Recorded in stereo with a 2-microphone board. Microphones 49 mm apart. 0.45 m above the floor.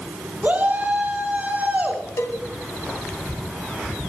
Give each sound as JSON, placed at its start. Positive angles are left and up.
{"t": 0.4, "sound": "a shout", "side_deg": -40, "distance_m": 5.0}
{"t": 2.2, "sound": "a cowbell", "side_deg": 75, "distance_m": 2.0}